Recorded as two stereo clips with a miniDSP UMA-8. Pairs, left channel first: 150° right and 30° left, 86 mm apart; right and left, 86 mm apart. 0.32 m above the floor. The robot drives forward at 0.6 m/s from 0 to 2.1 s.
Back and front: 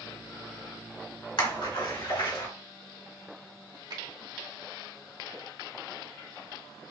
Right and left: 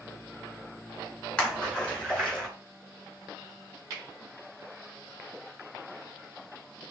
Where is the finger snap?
45° left, 1.7 m.